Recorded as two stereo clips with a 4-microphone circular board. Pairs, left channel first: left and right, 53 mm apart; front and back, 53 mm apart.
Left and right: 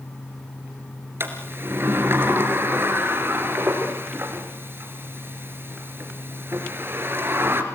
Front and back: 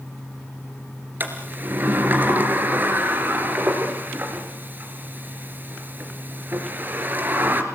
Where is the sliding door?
130° right, 2.5 m.